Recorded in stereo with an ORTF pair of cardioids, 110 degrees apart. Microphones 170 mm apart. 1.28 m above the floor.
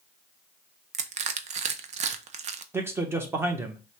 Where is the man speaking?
15° right, 1.2 m.